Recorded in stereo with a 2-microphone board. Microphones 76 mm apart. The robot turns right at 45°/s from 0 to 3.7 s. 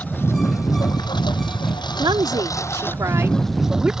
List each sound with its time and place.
0.0 s a lawn mower: 20° left; by 4.0 s 175° right
2.0 s a woman speaking: 95° right; by 3.9 s 15° right